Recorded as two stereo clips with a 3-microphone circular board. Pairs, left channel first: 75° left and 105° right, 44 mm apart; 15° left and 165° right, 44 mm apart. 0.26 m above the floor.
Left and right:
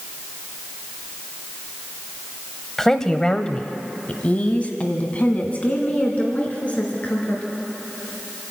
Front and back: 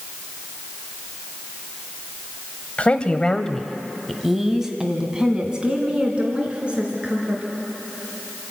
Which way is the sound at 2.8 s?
5° left.